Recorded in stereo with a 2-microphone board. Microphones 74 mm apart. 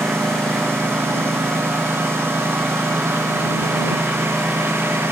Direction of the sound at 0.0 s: 30° right (ahead or behind).